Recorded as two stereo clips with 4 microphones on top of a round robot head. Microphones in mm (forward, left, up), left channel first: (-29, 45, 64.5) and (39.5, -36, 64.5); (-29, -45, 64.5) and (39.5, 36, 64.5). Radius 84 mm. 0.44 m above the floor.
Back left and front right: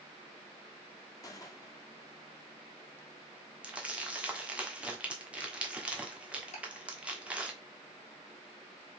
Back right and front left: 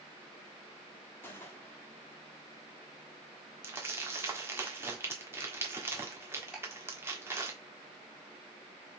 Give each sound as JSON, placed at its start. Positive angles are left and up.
{"t": 1.2, "sound": "a gunshot", "azimuth_deg": 170, "distance_m": 1.2}
{"t": 3.6, "sound": "crumpling", "azimuth_deg": 15, "distance_m": 1.2}
{"t": 6.5, "sound": "ticking", "azimuth_deg": 135, "distance_m": 1.9}